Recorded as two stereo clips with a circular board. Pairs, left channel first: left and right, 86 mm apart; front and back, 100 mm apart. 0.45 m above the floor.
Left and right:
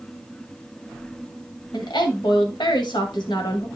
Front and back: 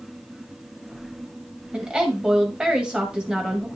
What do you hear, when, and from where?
1.7 s a woman speaking: 100° left, 1.9 m